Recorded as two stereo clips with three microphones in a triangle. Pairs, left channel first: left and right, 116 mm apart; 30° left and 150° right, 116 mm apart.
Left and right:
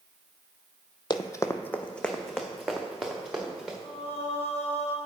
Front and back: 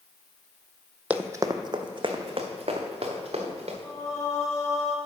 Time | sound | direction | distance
1.1 | running footsteps | 135° left | 0.5 m
3.8 | singing | 90° left | 1.4 m